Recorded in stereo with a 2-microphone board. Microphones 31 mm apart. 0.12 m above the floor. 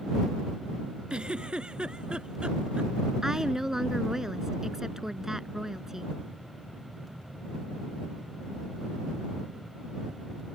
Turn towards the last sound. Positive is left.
turn(degrees=-15)  # may be behind; listen again after turning